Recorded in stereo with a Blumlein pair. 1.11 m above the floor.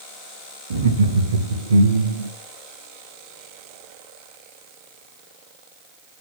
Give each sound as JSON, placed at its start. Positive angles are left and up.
{"t": 0.7, "sound": "laughter", "azimuth_deg": -65, "distance_m": 1.6}